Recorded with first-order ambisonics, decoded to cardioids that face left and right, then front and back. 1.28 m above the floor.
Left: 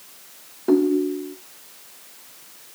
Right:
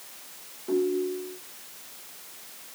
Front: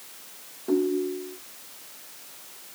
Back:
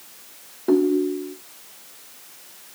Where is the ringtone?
125° left, 0.7 m.